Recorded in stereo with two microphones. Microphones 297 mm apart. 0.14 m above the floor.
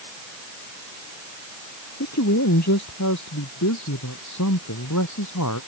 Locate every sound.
2.0 s a man speaking: 60° left (ahead or behind); by 5.6 s 80° left